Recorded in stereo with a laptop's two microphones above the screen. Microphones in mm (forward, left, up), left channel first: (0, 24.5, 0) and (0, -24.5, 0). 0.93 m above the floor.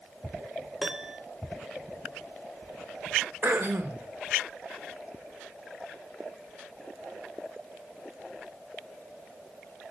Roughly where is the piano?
Centre.